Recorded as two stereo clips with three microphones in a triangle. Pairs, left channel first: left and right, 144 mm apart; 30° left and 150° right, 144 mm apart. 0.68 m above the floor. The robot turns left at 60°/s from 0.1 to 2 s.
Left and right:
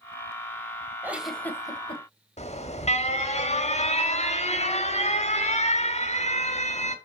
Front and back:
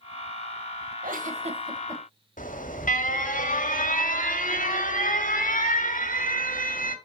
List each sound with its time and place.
1.0 s a giggle: 165° right, 1.3 m; by 2.0 s 135° left, 1.3 m
2.4 s an alarm: 50° left, 1.2 m